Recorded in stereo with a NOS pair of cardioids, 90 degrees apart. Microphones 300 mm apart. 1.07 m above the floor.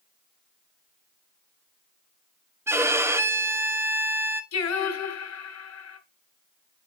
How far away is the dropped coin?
I don't hear a dropped coin.